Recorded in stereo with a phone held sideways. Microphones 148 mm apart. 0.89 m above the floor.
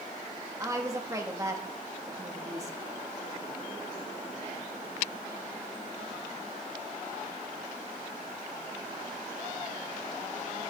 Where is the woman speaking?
20° right (ahead or behind), 1.5 m.